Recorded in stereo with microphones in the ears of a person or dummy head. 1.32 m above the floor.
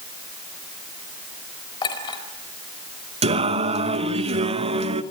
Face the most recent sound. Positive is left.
turn(degrees=-30)  # may be behind; listen again after turning